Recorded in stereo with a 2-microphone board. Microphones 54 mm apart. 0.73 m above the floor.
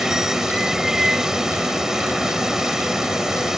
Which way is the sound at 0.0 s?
10° right (ahead or behind).